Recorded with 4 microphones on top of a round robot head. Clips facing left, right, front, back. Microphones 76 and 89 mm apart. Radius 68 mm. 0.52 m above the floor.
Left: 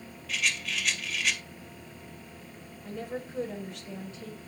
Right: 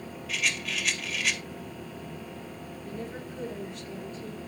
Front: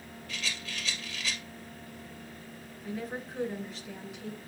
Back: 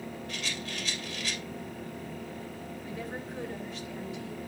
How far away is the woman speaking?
About 7 m.